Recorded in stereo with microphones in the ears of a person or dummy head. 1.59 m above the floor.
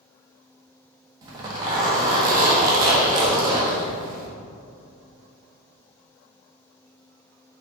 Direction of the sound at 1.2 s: 25° right (ahead or behind).